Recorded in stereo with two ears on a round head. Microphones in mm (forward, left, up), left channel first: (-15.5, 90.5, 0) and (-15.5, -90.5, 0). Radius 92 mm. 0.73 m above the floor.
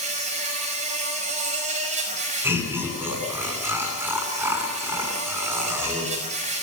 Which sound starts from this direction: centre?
Laughter, at 2.4 s.